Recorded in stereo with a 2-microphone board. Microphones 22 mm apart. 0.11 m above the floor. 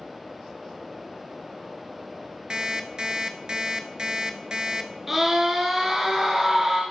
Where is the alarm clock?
35° right (ahead or behind), 0.8 m.